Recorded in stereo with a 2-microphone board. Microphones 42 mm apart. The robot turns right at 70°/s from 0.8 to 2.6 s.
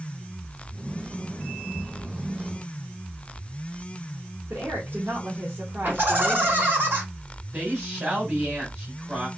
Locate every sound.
4.5 s a woman speaking: 50° right (ahead or behind), 1.6 m
5.8 s laughter: 50° right (ahead or behind), 2.5 m
7.5 s a woman speaking: 40° right (ahead or behind), 3 m